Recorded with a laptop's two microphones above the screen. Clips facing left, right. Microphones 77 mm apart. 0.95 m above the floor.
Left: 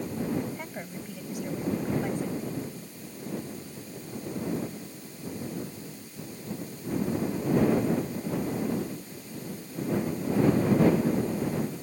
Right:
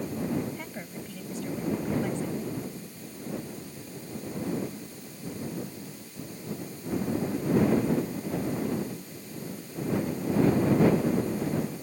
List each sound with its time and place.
0.6 s a woman speaking: 10° left (ahead or behind)